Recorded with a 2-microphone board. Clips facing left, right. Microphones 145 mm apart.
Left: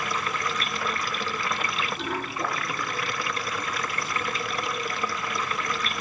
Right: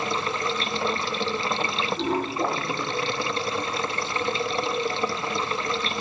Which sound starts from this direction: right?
Running water, at 0.0 s.